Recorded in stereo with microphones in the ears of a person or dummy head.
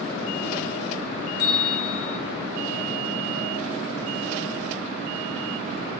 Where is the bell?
50° left (ahead or behind), 1.8 m.